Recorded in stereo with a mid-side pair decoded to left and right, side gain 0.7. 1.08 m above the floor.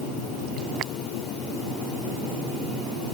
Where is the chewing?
No chewing in this recording.